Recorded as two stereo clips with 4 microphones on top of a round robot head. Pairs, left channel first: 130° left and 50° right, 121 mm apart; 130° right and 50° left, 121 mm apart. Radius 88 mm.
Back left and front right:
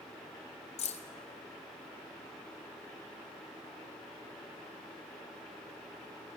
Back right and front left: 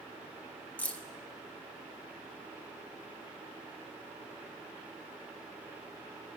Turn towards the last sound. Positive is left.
turn(degrees=150)